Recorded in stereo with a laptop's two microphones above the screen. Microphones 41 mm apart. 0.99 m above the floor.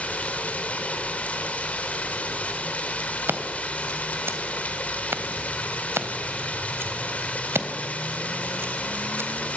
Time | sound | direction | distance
0.0 | running water | 35° left (ahead or behind) | 3 m
3.3 | scissors | 70° right (ahead or behind) | 3 m